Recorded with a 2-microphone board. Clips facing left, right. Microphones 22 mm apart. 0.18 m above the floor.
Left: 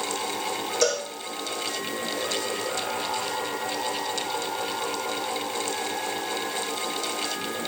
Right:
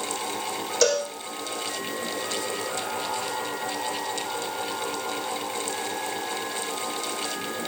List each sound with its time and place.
0.8 s a cowbell: 40° right (ahead or behind), 8.5 m